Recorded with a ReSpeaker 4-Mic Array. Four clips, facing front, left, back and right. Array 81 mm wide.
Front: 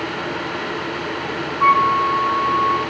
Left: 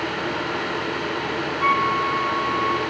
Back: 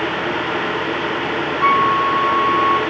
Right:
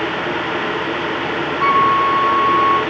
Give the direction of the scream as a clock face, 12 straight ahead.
I don't hear a scream.